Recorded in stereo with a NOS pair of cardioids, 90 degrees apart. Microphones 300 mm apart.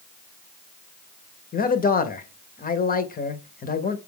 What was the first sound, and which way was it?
A man speaking, 30° left.